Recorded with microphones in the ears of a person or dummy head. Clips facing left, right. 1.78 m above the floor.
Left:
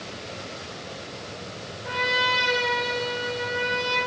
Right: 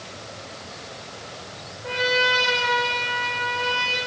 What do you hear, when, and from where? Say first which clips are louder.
1.8 s a trumpet: right 4 dB; 50° right (ahead or behind), 3.5 m